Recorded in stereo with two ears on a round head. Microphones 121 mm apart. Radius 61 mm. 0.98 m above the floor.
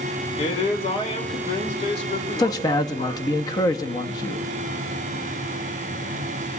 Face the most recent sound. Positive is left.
turn(degrees=30)  # may be behind; listen again after turning